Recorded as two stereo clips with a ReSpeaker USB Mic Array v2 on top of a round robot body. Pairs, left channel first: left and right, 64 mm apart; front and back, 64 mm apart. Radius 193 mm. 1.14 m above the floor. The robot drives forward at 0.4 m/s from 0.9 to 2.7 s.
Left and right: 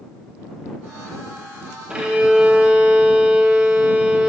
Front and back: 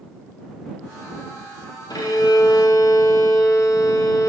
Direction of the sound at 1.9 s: 15° right.